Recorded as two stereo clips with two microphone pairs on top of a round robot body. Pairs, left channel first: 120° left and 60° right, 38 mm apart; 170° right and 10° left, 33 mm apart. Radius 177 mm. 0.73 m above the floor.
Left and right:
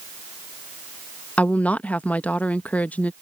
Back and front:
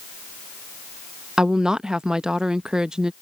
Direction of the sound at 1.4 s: 65° left.